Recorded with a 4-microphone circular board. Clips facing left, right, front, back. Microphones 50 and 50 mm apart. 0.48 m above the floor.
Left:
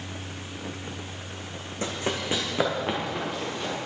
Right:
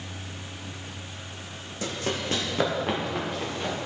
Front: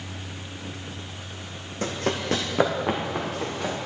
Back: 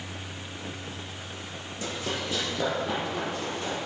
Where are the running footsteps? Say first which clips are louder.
Left 1 dB, front 6 dB; 35° left, 1.0 m; by 3.8 s 5° right, 2.5 m.